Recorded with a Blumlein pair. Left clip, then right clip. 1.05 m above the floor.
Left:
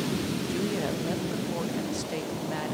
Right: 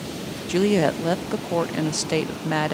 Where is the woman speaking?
30° right, 0.8 m.